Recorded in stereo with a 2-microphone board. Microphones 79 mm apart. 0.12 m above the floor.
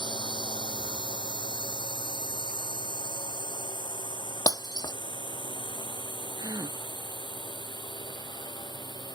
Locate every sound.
0.0 s a drone: 70° left (ahead or behind); by 9.2 s 65° left (ahead or behind)
4.5 s breaking glass: 55° left (ahead or behind)
6.4 s a gasp: 55° right (ahead or behind)